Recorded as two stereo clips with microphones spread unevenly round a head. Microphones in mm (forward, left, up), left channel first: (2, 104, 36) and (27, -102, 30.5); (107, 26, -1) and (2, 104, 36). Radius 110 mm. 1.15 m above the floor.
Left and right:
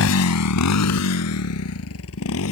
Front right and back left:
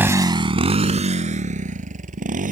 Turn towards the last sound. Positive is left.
turn(degrees=125)